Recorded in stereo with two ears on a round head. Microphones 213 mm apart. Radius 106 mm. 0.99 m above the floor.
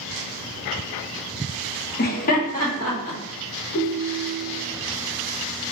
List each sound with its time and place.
2.0 s laughter: 40° left (ahead or behind), 0.6 m; by 3.2 s 30° left (ahead or behind), 2 m
3.7 s a ringtone: 45° left (ahead or behind), 0.5 m